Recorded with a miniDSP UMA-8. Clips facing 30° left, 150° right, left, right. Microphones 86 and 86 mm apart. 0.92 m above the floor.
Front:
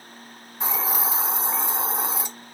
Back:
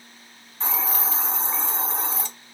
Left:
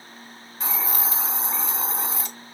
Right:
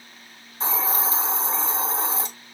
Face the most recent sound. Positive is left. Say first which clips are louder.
# front 1 dB, right 4 dB
turn(degrees=-40)